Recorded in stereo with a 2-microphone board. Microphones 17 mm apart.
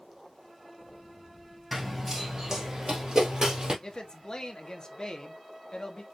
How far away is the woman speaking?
About 0.8 m.